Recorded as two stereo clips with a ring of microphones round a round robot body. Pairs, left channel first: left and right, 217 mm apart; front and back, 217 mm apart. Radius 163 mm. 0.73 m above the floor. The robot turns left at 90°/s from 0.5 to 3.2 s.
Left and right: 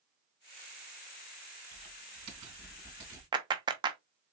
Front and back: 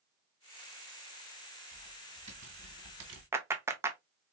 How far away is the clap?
About 0.6 m.